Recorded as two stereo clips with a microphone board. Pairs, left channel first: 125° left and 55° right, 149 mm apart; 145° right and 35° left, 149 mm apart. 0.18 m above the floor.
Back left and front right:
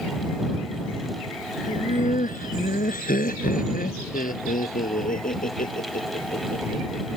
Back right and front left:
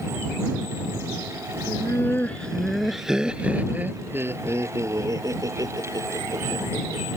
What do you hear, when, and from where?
1.7 s laughter: 145° left; by 7.0 s 95° left